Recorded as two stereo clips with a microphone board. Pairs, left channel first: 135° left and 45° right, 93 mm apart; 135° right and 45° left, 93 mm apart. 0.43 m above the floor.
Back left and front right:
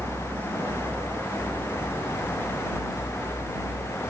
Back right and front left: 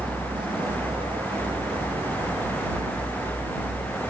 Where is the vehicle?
15° left; by 4.1 s 40° left.